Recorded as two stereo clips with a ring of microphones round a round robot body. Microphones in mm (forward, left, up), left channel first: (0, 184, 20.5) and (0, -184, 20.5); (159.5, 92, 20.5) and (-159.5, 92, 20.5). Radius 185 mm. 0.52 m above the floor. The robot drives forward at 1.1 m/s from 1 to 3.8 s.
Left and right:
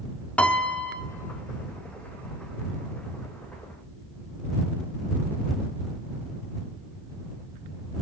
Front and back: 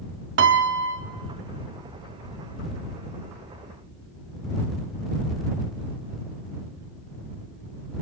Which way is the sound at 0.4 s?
175° left.